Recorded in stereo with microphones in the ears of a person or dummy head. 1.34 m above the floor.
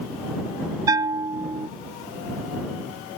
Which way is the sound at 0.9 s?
25° right (ahead or behind).